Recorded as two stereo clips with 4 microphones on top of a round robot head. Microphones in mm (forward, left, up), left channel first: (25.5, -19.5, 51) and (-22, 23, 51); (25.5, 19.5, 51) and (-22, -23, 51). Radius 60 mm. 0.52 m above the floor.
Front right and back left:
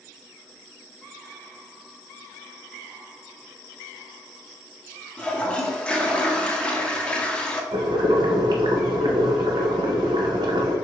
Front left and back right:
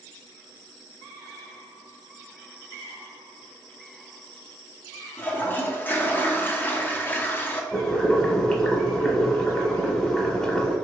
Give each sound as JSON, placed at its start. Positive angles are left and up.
{"t": 5.2, "sound": "a toilet flushing", "azimuth_deg": 20, "distance_m": 0.8}
{"t": 7.7, "sound": "boiling", "azimuth_deg": 120, "distance_m": 0.7}